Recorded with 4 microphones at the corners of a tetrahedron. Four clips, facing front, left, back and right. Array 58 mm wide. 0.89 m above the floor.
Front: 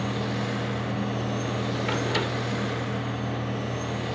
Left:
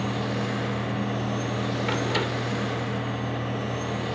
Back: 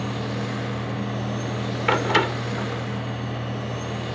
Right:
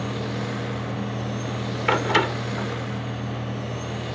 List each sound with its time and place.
1.9 s a door slam: 135° right